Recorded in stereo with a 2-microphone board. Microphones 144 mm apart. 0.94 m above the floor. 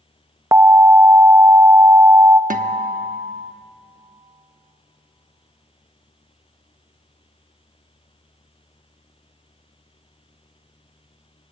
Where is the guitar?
65° right (ahead or behind), 1.0 m.